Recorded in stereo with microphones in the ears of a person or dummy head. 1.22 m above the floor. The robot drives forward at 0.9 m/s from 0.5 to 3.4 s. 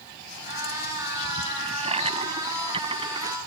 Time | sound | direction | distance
1.6 | a toilet flushing | 35° right (ahead or behind) | ?